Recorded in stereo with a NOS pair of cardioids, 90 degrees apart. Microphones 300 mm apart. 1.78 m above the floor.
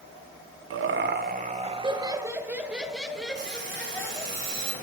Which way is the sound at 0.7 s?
50° right.